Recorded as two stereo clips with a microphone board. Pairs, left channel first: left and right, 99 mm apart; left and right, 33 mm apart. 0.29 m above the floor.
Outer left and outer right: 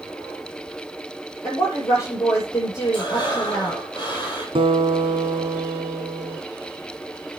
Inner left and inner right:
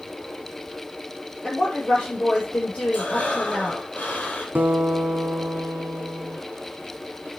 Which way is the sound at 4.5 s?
65° right (ahead or behind).